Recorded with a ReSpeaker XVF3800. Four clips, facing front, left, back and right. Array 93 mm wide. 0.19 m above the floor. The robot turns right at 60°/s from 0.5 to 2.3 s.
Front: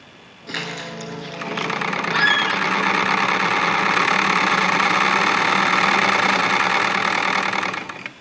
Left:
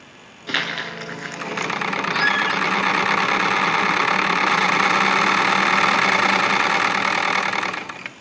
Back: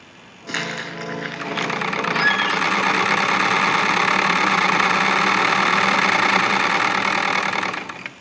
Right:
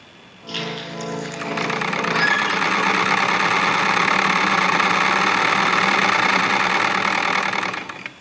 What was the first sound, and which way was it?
Crumpling, 105° left.